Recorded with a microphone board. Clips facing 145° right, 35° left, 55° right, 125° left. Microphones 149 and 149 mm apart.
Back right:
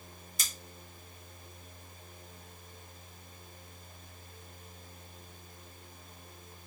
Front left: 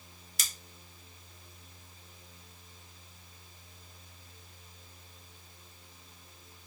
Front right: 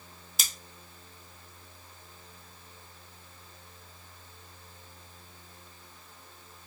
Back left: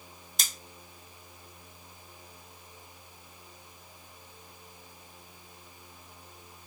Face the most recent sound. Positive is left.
turn(degrees=30)